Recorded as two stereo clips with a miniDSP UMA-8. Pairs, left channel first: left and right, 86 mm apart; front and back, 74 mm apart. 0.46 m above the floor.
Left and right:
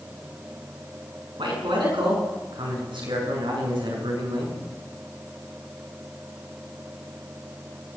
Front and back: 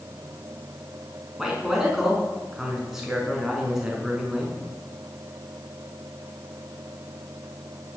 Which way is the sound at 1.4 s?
95° right.